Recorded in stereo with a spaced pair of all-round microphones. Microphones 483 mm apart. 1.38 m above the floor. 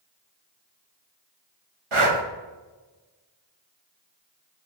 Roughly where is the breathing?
Right.